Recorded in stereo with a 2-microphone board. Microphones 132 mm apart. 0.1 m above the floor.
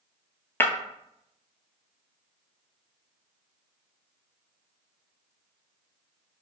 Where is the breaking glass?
20° left (ahead or behind), 0.5 m.